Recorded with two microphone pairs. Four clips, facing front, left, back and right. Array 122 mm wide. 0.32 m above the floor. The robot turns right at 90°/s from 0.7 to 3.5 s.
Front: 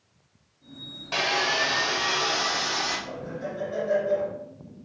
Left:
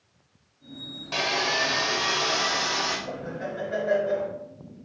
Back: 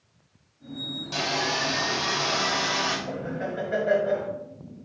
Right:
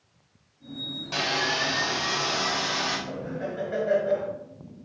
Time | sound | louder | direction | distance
1.1 | sawing | left 1 dB, front 2 dB | 15° left | 1.6 m
3.1 | laughter | even, back 3 dB | 135° left | 2 m